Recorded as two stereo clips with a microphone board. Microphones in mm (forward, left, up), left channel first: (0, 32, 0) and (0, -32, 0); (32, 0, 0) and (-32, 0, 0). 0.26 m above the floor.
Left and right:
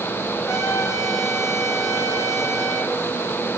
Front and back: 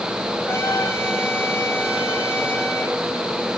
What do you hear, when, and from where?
0.5 s a trumpet: 50° left, 5 m